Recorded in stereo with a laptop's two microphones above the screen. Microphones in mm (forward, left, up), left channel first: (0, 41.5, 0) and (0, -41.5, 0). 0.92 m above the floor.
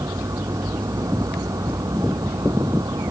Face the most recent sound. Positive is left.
turn(degrees=-50)  # may be behind; listen again after turning